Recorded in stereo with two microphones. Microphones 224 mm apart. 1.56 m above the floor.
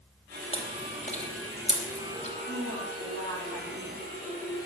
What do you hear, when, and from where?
0.5 s chewing: 30° left (ahead or behind), 2.5 m
2.4 s a woman speaking: 75° right (ahead or behind), 8 m